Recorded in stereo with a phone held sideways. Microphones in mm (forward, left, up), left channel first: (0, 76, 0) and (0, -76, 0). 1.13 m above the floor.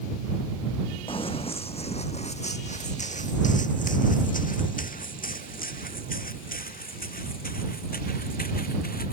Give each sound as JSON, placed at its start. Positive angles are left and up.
{"t": 1.1, "sound": "running footsteps", "side_deg": 40}